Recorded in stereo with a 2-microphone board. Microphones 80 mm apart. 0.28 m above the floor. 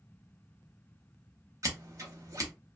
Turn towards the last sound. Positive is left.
turn(degrees=-45)  # may be behind; listen again after turning